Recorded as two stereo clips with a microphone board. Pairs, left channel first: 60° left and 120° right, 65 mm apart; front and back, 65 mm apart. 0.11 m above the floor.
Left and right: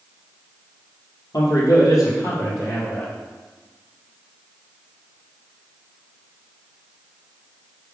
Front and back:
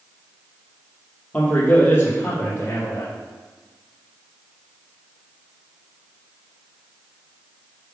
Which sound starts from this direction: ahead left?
A man speaking, at 1.3 s.